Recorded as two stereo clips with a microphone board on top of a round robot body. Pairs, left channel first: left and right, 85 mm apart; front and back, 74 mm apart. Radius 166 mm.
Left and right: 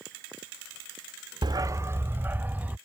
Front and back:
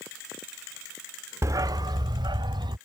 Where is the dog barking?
130° right; by 2.8 s 165° right.